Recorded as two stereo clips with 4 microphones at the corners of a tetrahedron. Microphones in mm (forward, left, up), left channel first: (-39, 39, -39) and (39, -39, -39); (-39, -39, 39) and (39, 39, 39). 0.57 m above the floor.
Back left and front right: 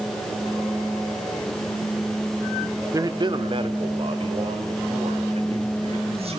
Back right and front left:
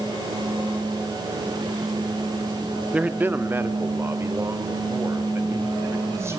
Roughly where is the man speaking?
Ahead right.